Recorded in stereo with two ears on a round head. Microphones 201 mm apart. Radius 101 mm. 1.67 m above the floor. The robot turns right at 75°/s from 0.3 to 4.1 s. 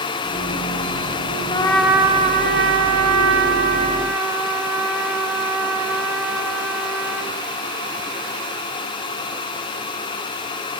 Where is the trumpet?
155° left, 0.6 m; by 7.4 s 10° right, 0.6 m.